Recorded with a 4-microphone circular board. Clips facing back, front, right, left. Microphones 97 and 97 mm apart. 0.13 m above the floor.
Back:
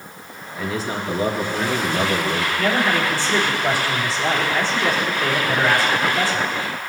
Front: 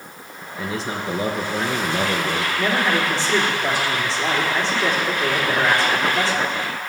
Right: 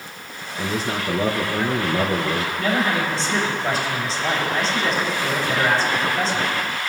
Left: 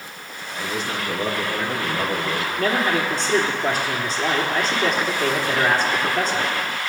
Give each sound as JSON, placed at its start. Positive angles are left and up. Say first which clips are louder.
{"t": 0.6, "sound": "a man speaking", "louder": "back 1 dB, right 2 dB", "azimuth_deg": -50, "distance_m": 1.7}
{"t": 2.6, "sound": "a man speaking", "louder": "back 1 dB, left 2 dB", "azimuth_deg": 65, "distance_m": 3.5}